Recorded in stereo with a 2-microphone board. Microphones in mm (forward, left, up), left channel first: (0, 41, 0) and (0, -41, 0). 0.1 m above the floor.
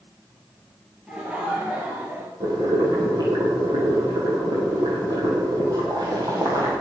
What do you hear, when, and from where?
1.1 s laughter: 15° right (ahead or behind), 2.5 m; by 2.3 s 25° right (ahead or behind), 2.0 m
2.4 s boiling: 50° right (ahead or behind), 3.5 m